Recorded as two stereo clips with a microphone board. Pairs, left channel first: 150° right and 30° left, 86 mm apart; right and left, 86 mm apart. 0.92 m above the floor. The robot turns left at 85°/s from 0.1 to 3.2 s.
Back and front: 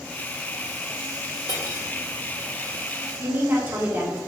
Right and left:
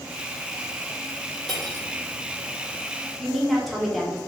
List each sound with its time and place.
1.5 s cutlery clinking: 5° left, 1.4 m; by 1.9 s 30° right, 1.4 m
3.2 s a woman speaking: straight ahead, 0.7 m